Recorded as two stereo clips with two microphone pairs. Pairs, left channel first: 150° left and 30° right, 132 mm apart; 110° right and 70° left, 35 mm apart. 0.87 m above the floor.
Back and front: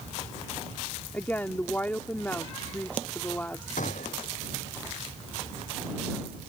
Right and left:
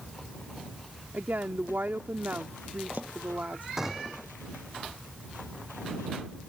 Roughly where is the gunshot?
Behind left.